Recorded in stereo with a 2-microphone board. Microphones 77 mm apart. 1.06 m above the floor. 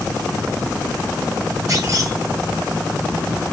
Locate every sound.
1.7 s a clunk: 45° right (ahead or behind), 1.7 m